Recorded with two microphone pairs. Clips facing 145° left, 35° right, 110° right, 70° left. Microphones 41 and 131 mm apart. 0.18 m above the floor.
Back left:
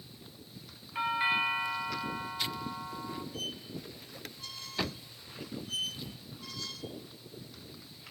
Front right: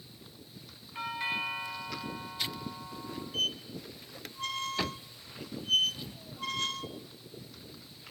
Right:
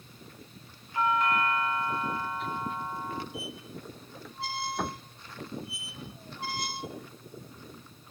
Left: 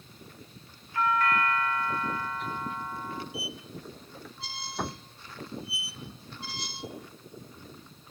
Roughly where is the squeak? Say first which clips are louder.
Front right 6 dB, even; right.